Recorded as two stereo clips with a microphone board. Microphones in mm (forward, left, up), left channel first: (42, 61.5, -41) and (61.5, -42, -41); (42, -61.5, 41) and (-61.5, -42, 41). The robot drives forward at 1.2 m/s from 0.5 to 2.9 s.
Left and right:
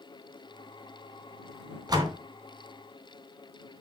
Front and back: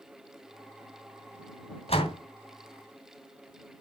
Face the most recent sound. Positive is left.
turn(degrees=-50)